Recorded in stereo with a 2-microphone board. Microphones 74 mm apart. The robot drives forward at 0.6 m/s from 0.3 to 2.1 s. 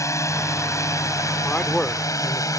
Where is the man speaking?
15° left (ahead or behind).